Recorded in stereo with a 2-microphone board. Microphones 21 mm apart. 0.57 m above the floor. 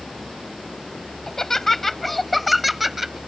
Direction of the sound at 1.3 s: 25° left (ahead or behind).